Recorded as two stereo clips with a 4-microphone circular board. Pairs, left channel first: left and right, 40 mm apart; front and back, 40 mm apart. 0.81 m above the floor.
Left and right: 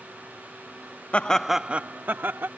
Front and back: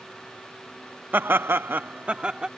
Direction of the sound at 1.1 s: 145° left.